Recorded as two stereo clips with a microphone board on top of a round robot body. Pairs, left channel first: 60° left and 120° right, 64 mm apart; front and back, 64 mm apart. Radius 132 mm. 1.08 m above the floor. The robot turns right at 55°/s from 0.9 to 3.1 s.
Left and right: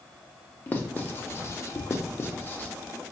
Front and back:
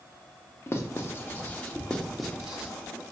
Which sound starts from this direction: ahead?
Writing, at 0.7 s.